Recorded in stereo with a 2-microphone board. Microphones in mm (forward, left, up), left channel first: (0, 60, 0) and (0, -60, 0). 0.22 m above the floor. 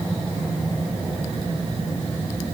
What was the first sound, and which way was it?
Only background noise.